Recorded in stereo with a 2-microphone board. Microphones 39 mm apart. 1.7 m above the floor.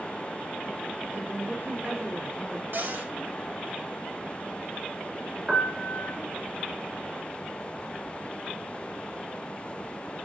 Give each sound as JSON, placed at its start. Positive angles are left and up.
{"t": 1.1, "sound": "a woman speaking", "side_deg": -60, "distance_m": 4.0}
{"t": 2.7, "sound": "a cupboard door", "side_deg": -65, "distance_m": 3.5}
{"t": 5.5, "sound": "a piano", "side_deg": -20, "distance_m": 2.0}